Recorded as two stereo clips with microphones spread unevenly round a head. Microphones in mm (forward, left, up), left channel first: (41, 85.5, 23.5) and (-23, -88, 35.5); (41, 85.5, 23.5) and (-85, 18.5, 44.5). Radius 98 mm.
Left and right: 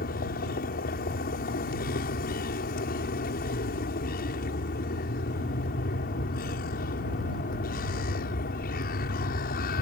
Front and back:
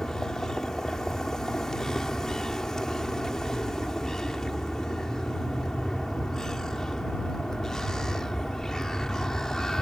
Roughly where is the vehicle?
Behind left.